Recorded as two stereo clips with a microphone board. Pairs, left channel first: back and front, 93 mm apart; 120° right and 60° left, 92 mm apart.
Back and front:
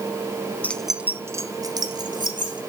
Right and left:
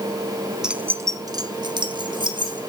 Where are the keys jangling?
135° left, 0.8 m; by 2.6 s 30° left, 2.5 m.